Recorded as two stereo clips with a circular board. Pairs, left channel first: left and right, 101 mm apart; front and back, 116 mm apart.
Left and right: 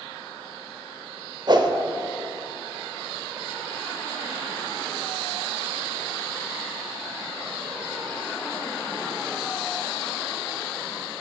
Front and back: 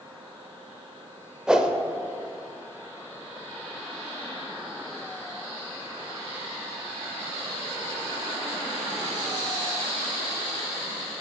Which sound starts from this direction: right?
A whoosh, at 1.5 s.